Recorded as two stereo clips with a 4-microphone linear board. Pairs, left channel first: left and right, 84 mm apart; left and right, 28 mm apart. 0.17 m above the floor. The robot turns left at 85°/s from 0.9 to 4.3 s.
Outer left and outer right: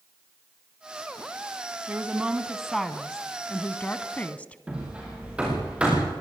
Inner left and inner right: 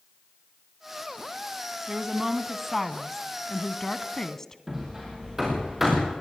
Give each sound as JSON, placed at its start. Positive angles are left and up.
{"t": 1.9, "sound": "a woman speaking", "side_deg": -20, "distance_m": 1.1}
{"t": 4.7, "sound": "hammering", "side_deg": -10, "distance_m": 7.5}